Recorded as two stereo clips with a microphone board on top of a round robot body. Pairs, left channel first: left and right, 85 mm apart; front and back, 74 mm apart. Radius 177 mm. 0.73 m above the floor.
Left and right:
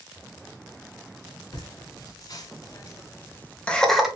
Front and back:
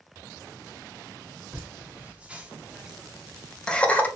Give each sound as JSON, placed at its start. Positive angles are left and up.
{"t": 1.5, "sound": "laughter", "azimuth_deg": 115, "distance_m": 1.7}